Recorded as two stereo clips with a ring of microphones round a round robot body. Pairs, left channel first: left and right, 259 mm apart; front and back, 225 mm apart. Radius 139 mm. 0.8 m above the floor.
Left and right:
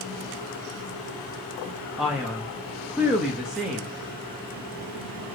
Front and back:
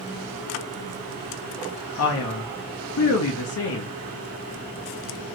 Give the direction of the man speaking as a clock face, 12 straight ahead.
12 o'clock.